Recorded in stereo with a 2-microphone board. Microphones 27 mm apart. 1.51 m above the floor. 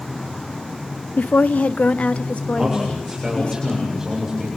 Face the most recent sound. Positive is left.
turn(degrees=-20)  # may be behind; listen again after turning